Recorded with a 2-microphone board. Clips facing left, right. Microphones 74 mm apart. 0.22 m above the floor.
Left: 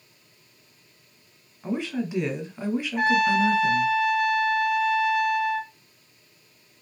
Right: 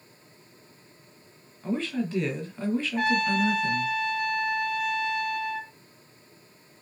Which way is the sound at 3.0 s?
5° left (ahead or behind).